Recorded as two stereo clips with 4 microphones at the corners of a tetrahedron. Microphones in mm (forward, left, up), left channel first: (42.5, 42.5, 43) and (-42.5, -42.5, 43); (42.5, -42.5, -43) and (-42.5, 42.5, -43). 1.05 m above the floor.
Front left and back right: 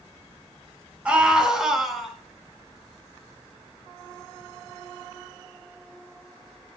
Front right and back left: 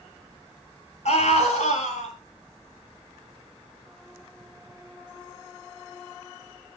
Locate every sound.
1.1 s a scream: 55° right, 6 m; by 2.1 s 45° right, 6.5 m